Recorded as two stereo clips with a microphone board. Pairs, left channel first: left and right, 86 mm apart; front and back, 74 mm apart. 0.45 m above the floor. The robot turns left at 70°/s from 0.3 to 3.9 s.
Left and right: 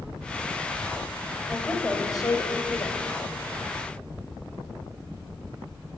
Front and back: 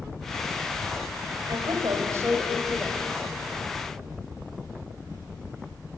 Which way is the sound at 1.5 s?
Straight behind.